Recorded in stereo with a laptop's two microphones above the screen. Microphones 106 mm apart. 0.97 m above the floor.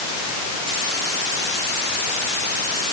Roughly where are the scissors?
I don't hear scissors.